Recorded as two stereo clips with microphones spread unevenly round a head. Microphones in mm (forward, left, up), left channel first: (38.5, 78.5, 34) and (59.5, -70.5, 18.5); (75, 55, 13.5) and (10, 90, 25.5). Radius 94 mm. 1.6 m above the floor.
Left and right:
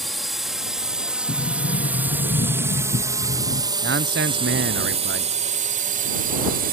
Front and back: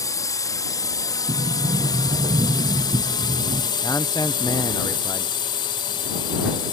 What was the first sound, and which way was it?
A drone, 10° left.